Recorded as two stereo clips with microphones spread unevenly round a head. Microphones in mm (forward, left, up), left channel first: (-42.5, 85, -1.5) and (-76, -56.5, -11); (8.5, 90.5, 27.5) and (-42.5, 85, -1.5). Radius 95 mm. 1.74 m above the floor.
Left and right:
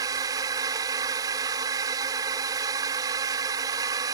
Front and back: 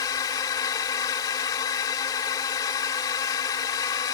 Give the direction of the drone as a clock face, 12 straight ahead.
1 o'clock.